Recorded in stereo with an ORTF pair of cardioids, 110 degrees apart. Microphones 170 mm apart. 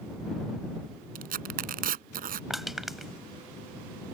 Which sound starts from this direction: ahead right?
Tearing paper, at 1.1 s.